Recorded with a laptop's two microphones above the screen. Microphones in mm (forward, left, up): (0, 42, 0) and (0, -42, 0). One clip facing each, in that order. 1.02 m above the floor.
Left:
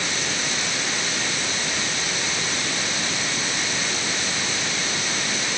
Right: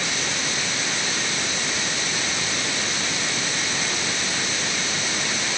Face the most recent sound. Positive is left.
No sound to turn to.